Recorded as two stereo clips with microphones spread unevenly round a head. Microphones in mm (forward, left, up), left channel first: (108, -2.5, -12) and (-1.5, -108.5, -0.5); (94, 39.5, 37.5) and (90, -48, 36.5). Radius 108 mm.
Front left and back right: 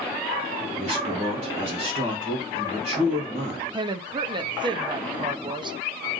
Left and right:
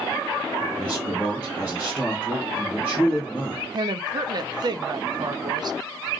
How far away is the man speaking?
About 1.5 m.